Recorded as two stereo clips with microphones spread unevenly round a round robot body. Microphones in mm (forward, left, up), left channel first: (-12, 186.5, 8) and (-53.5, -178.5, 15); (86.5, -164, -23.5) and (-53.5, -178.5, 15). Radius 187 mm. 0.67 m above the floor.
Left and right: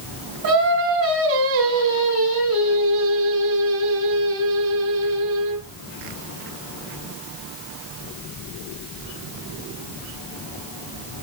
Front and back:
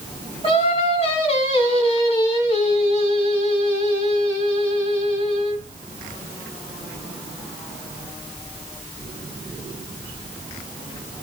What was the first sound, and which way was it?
Singing, 40° right.